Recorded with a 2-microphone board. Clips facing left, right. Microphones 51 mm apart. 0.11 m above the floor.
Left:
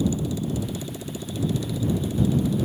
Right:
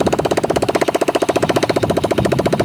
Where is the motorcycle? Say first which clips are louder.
Right 11 dB; 75° right (ahead or behind).